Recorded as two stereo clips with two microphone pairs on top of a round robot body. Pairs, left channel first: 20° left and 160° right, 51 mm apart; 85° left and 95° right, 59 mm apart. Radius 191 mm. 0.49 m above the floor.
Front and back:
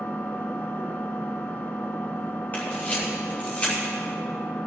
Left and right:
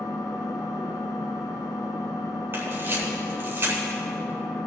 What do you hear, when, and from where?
0.0 s an engine running: 85° left, 1.6 m
2.5 s a camera shutter: 45° right, 3.5 m